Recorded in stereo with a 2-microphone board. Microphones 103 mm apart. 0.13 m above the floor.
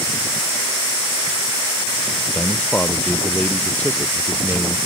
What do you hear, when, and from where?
2.3 s a man speaking: 10° left (ahead or behind)